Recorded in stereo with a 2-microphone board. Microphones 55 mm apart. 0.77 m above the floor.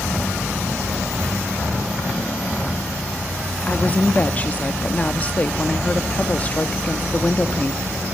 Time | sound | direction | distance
3.7 | a woman speaking | 30° left (ahead or behind) | 1.3 m